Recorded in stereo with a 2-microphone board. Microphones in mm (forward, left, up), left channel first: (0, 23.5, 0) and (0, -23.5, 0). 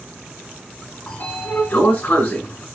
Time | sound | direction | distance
1.1 | a sliding door | 35° left (ahead or behind) | 1.5 m